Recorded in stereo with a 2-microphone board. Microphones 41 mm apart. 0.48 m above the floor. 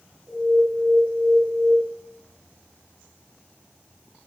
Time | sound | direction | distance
0.3 | an alarm | centre (ahead or behind) | 4.5 m